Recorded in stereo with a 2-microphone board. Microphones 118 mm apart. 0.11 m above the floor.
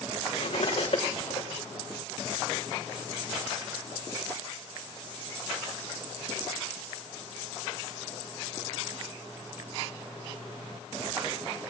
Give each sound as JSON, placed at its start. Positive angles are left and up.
{"t": 0.3, "sound": "cutlery clinking", "side_deg": 50, "distance_m": 4.5}